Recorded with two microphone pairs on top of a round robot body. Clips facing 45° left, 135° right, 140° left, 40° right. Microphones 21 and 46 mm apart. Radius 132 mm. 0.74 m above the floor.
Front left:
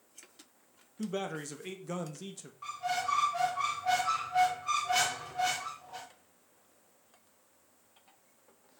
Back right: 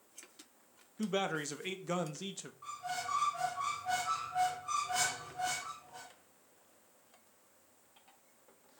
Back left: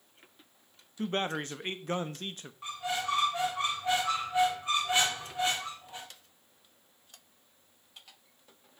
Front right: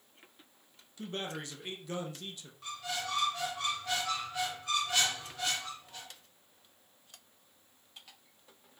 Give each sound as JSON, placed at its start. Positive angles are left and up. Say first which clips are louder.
{"t": 1.0, "sound": "a man speaking", "louder": "back right 2 dB, back left 7 dB", "azimuth_deg": 170, "distance_m": 1.0}
{"t": 2.6, "sound": "a squeak", "louder": "front left 6 dB, back left 5 dB", "azimuth_deg": 70, "distance_m": 0.7}